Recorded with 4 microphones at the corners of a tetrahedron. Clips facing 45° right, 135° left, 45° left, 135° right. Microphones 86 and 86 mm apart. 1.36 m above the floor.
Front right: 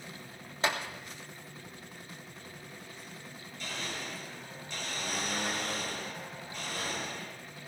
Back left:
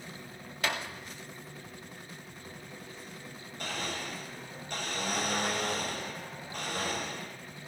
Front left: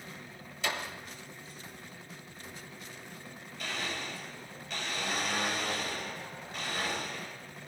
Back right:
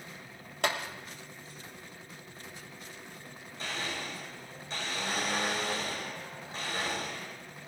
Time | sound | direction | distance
0.6 | a clap | 105° right | 1.5 m
3.6 | a blender | 170° left | 5.5 m